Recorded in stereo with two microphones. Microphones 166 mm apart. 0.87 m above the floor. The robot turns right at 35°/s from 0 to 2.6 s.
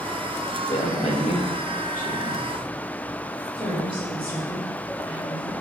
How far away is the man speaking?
About 1.1 m.